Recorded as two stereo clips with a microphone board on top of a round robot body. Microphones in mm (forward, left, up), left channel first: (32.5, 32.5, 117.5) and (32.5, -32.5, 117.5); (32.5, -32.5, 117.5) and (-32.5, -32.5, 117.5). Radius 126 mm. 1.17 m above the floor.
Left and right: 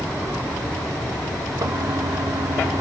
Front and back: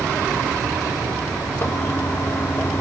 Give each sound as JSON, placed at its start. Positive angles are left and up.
{"t": 1.6, "sound": "a toilet flushing", "azimuth_deg": -55, "distance_m": 0.6}